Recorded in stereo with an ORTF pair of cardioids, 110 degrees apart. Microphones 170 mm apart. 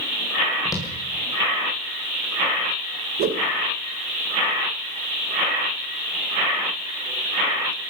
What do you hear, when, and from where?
0.7 s footsteps: 20° left, 6.5 m
3.2 s a whoosh: 70° right, 1.4 m